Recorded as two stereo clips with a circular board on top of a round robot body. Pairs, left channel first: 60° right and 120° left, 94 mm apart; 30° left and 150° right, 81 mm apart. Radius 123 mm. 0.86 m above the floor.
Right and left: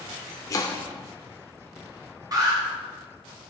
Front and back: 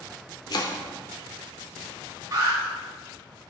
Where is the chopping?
5° right, 0.7 m.